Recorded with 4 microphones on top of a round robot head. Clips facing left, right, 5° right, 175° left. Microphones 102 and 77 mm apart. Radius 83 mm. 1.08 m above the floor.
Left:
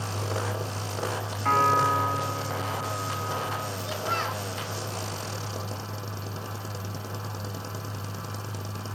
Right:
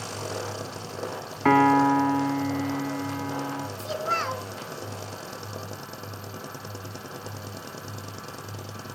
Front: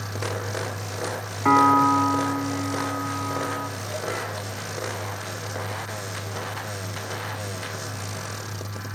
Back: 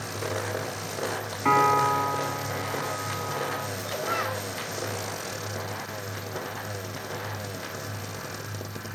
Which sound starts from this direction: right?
A piano, at 1.4 s.